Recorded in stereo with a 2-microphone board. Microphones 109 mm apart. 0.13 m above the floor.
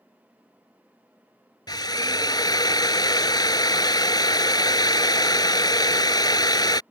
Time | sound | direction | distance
1.7 | a drill | 40° left (ahead or behind) | ?